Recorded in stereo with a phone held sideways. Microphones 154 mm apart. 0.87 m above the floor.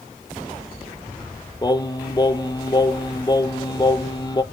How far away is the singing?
About 0.7 m.